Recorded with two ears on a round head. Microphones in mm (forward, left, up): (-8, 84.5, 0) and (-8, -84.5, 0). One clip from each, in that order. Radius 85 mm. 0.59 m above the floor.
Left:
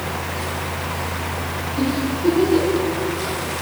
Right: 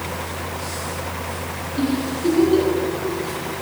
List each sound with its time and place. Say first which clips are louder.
1.8 s a giggle: even; 20° right (ahead or behind), 6.5 m